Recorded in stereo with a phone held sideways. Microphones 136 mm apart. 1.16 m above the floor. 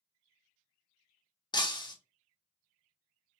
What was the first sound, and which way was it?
Breaking glass, 30° left (ahead or behind).